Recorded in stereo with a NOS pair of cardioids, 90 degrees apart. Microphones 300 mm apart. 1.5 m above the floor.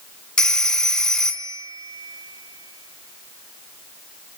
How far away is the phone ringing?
About 1.6 m.